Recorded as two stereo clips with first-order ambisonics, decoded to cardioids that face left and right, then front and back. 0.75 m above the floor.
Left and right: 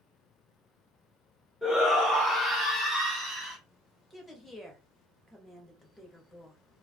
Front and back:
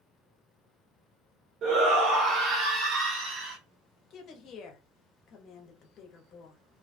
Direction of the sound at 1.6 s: 155° left.